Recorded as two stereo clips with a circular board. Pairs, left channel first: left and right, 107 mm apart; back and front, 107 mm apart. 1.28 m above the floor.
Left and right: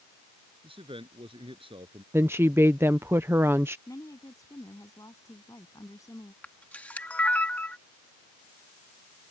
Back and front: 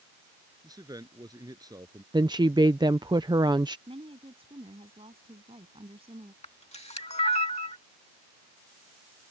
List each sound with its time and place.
0.6 s a man speaking: 55° right
2.1 s a woman speaking: 30° right
3.9 s a woman speaking: 30° left
6.4 s a camera shutter: 165° left